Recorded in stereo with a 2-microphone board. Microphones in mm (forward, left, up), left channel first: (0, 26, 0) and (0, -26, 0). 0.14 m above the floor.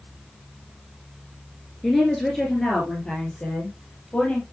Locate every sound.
1.8 s a woman speaking: 5° right (ahead or behind), 2 m; by 4.4 s 20° left (ahead or behind), 3.5 m